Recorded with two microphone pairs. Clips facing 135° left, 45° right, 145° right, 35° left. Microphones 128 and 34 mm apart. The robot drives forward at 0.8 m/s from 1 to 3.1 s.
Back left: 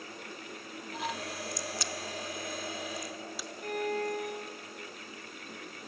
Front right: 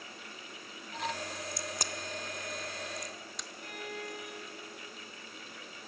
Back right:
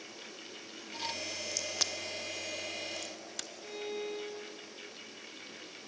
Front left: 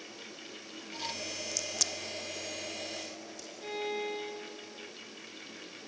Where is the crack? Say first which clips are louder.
Back left 2 dB, back right 1 dB; 65° right, 0.9 m; by 3.5 s 140° right, 1.2 m.